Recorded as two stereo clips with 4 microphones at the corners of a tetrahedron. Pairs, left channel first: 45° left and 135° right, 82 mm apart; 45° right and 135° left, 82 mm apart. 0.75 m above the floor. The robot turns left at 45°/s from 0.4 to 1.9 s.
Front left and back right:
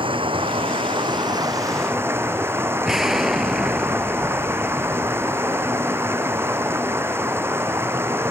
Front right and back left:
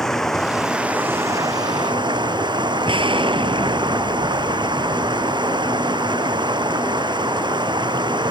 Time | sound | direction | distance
0.0 | running water | 130° right | ?
2.9 | an explosion | 140° left | ?